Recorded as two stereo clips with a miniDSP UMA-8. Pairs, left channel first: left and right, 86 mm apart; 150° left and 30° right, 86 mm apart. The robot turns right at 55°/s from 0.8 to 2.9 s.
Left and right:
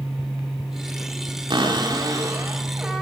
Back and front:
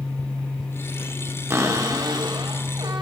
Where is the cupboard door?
85° right, 1.7 m; by 3.0 s 10° right, 1.7 m.